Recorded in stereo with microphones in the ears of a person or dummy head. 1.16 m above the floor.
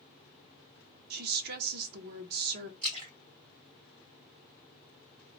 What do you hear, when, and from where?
1.1 s a woman speaking: 55° right (ahead or behind), 0.6 m
2.8 s a splash: 40° right (ahead or behind), 1.4 m